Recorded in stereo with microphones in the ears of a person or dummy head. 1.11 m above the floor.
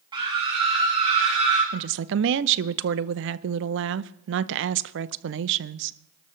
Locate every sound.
0.1 s a scream: 20° right (ahead or behind), 2 m; by 1.6 s 30° right (ahead or behind), 3.5 m
1.7 s a woman speaking: 65° right (ahead or behind), 0.6 m